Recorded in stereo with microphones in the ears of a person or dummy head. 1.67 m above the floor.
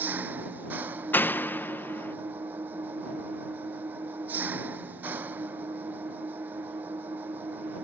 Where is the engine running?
10° right (ahead or behind).